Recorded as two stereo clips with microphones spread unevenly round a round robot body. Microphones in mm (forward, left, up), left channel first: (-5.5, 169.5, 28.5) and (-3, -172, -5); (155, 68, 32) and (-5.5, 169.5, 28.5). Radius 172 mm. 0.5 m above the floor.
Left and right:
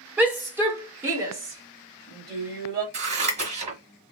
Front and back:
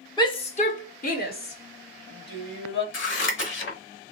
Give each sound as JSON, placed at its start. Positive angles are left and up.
{"t": 0.2, "sound": "a shout", "azimuth_deg": -25, "distance_m": 1.0}
{"t": 2.9, "sound": "scissors", "azimuth_deg": -20, "distance_m": 1.3}